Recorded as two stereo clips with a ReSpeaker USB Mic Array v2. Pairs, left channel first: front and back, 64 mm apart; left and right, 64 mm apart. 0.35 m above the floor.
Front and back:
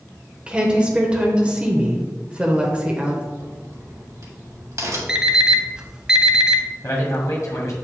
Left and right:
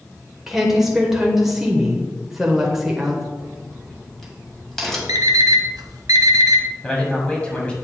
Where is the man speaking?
20° left, 2 m.